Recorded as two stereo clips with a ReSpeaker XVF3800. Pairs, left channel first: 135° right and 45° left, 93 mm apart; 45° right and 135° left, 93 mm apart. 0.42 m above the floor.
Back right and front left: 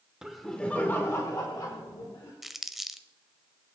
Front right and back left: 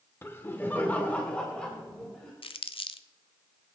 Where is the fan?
I don't hear a fan.